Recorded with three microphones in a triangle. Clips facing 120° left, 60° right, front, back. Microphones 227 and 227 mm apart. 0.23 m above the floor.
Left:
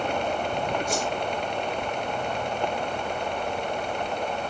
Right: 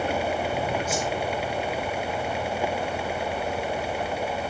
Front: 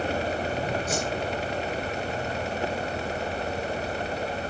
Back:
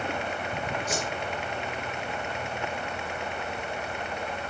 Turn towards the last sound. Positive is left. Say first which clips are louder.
# even, front 3 dB
turn(degrees=25)